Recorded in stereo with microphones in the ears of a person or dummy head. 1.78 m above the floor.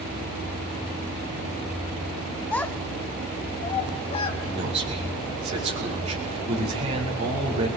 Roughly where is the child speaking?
Centre.